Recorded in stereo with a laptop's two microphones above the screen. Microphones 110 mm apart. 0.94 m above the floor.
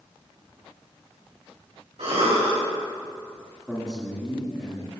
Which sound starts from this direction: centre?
A man speaking, at 3.7 s.